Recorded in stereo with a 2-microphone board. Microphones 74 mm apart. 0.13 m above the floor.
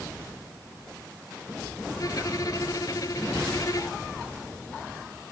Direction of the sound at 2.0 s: 50° left (ahead or behind).